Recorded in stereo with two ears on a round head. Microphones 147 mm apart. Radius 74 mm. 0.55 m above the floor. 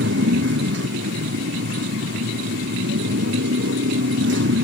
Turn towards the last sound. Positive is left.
turn(degrees=-90)